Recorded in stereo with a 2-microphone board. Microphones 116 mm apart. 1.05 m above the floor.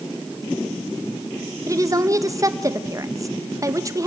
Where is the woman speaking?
30° right (ahead or behind), 1.3 m.